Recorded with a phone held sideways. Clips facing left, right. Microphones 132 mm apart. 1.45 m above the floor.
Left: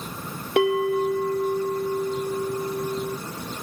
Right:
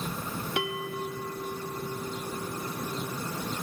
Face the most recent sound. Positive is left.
turn(degrees=60)  # may be behind; listen again after turning